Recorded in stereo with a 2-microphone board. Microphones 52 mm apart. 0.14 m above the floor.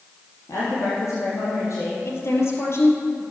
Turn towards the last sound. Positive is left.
turn(degrees=60)  # may be behind; listen again after turning